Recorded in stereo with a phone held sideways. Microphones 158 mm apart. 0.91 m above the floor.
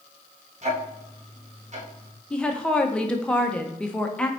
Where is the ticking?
45° right (ahead or behind), 1.2 m.